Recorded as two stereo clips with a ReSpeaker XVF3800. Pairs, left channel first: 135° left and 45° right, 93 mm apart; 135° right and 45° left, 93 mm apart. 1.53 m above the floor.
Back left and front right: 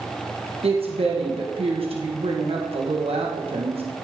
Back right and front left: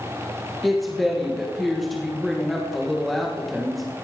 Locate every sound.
0.6 s a woman speaking: 45° right, 1.7 m